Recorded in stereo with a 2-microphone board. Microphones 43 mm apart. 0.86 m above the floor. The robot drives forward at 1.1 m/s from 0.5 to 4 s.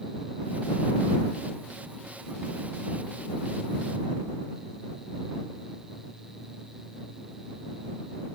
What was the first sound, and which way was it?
Only background noise.